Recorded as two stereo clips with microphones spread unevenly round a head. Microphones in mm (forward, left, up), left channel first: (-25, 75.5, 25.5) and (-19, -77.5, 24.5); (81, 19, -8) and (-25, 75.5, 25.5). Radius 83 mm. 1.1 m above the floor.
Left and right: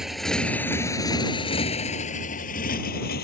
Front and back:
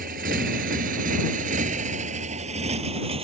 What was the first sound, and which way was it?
A motorcycle, 175° right.